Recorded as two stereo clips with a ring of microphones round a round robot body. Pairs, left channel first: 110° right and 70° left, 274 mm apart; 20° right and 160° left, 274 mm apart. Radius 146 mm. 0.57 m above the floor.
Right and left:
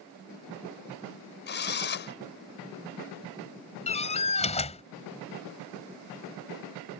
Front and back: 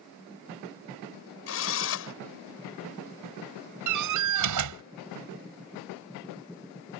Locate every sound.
1.5 s a drill: 60° right
3.9 s a door slam: straight behind